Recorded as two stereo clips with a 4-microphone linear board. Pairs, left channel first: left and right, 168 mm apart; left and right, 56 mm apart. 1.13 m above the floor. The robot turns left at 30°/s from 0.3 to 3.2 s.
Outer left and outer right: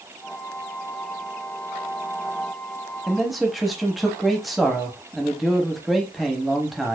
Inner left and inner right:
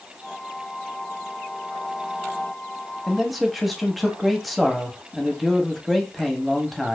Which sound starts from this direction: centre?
A man speaking, at 3.1 s.